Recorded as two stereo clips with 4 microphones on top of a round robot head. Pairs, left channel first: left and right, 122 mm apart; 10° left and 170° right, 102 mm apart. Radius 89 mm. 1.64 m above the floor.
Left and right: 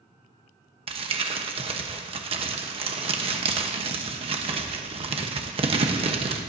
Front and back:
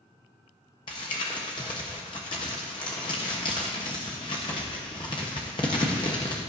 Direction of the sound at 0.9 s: 50° right.